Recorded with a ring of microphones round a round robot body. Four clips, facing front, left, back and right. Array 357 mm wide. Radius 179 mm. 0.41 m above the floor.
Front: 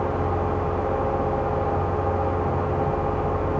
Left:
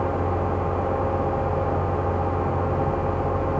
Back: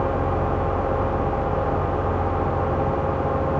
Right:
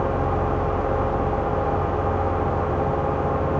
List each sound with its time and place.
Only background noise.